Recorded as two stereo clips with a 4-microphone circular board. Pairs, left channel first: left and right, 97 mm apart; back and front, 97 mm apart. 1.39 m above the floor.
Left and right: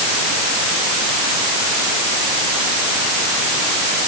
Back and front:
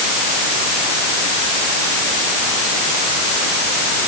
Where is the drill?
I don't hear a drill.